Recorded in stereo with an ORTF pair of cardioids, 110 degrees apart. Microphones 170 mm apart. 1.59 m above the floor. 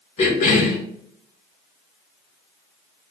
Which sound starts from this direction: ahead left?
A cough, at 0.2 s.